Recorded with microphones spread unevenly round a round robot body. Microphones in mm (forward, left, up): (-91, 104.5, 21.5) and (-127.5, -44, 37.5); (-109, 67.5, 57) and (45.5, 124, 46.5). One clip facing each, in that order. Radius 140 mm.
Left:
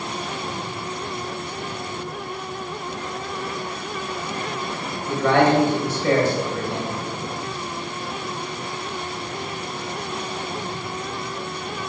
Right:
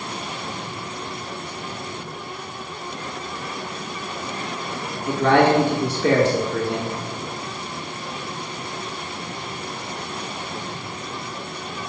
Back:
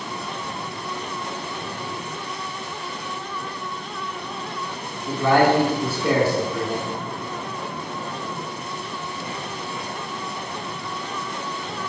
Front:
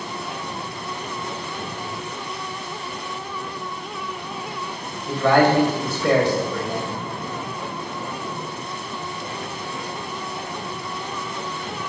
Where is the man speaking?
75° right, 1.5 m.